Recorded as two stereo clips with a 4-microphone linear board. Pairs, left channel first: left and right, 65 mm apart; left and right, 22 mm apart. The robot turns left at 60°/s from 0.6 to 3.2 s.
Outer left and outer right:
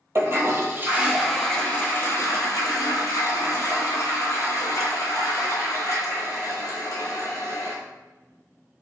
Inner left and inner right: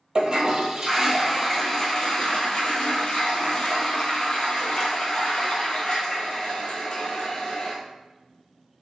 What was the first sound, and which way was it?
A toilet flushing, 135° right.